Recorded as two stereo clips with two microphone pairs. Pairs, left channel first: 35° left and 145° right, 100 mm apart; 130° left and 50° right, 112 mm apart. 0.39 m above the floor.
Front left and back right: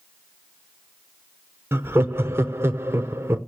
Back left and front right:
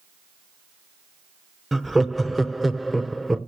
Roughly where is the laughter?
Behind right.